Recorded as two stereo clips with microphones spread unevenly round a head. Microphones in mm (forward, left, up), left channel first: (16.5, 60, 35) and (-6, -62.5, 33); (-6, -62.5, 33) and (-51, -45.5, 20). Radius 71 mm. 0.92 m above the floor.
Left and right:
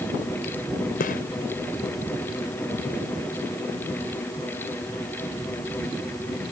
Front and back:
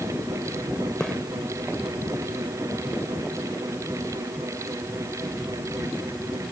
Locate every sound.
1.0 s a gunshot: 65° left